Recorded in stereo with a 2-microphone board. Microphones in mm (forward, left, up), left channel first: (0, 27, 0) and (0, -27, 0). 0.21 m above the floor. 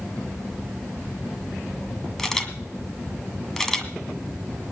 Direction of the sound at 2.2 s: 10° left (ahead or behind).